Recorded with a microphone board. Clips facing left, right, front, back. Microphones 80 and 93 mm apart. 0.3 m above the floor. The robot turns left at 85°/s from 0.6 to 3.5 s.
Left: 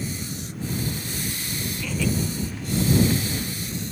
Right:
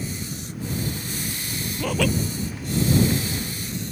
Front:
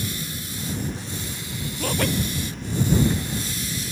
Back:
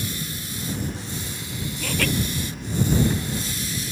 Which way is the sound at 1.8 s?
50° right.